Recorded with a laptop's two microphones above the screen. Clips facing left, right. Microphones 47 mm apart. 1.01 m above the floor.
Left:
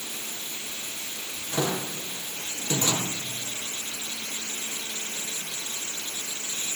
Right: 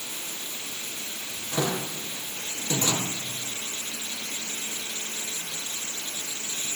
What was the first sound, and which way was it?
Only background noise.